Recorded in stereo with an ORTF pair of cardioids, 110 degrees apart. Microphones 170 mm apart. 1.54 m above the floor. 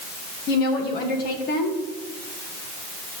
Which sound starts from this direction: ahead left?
A woman speaking, at 0.5 s.